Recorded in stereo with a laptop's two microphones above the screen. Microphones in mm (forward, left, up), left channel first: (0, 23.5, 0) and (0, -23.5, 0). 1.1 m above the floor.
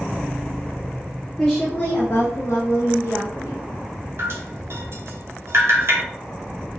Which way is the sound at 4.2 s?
60° right (ahead or behind).